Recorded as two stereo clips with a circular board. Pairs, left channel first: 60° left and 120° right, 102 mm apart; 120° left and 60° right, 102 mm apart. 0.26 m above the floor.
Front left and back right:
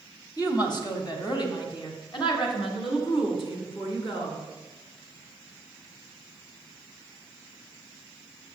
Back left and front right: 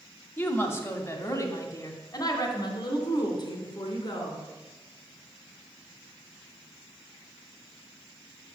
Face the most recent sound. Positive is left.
turn(degrees=80)